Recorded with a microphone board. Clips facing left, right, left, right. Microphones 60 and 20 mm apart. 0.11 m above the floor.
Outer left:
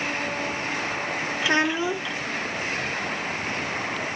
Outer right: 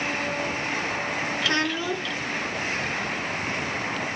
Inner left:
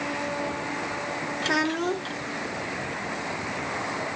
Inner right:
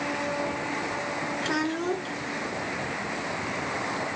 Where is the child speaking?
20° left (ahead or behind), 0.7 m.